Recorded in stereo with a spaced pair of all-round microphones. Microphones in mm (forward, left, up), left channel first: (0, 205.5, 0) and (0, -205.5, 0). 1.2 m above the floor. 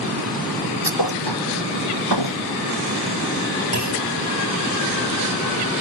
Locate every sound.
0.8 s a thud: 70° left (ahead or behind)
3.7 s a clunk: 40° left (ahead or behind)